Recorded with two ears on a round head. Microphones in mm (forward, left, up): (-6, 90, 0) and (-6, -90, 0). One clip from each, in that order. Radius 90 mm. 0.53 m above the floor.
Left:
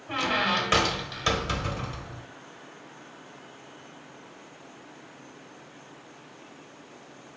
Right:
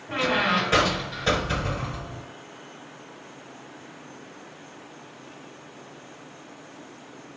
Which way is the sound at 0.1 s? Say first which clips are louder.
Right 2 dB; 65° left (ahead or behind).